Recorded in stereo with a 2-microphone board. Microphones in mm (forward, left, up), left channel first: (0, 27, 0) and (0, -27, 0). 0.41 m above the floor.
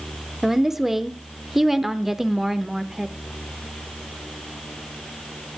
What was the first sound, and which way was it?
A woman speaking, 5° right (ahead or behind).